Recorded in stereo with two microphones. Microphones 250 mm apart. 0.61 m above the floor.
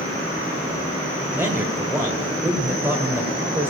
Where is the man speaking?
10° right (ahead or behind), 1.9 m.